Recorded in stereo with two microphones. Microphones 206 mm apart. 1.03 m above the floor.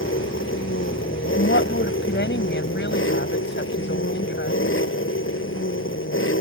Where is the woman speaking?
60° left (ahead or behind).